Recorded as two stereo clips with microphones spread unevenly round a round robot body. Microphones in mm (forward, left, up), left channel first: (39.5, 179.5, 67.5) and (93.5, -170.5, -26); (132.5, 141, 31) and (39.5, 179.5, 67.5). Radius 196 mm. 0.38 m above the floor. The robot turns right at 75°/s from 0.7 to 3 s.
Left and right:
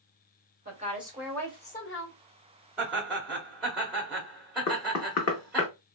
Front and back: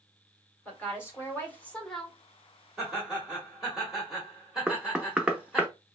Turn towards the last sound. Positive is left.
turn(degrees=55)